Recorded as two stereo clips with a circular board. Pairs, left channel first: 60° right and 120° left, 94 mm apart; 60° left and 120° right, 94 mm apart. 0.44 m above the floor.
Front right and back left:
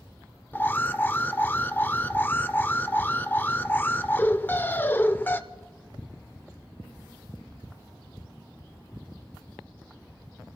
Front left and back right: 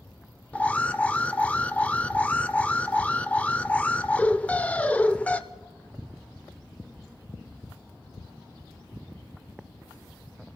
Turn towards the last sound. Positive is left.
turn(degrees=-5)